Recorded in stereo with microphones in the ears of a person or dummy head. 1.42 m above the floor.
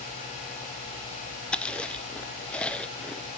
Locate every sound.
1.5 s chewing: 10° left (ahead or behind), 0.7 m